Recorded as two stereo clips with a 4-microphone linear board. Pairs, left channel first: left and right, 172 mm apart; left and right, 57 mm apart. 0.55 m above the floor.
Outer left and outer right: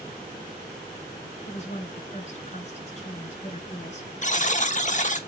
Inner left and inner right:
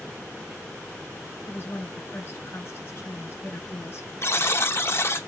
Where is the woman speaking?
45° left (ahead or behind), 4 m.